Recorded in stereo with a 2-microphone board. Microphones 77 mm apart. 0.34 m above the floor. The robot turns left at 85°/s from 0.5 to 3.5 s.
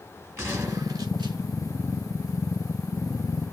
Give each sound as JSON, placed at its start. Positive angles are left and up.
{"t": 0.4, "sound": "a gunshot", "azimuth_deg": -35, "distance_m": 2.5}